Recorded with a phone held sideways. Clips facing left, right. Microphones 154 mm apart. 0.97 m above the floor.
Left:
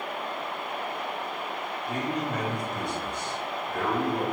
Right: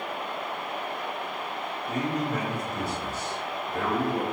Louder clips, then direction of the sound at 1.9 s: Right 2 dB; 5° right (ahead or behind).